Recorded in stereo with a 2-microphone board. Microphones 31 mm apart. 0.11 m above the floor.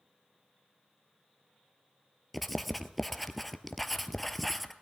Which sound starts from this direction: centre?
Writing, at 2.3 s.